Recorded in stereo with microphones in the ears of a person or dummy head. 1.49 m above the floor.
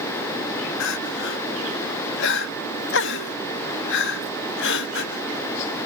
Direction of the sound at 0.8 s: 65° left (ahead or behind).